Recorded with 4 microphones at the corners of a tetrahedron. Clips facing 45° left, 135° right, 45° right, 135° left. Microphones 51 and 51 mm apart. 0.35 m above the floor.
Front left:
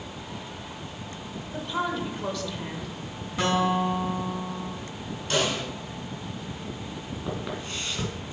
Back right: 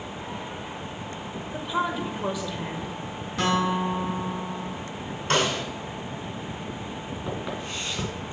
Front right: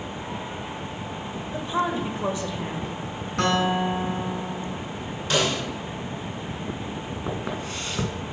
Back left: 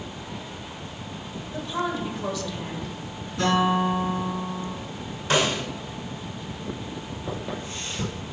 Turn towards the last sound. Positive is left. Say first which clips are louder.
# even, front right 2 dB
turn(degrees=-45)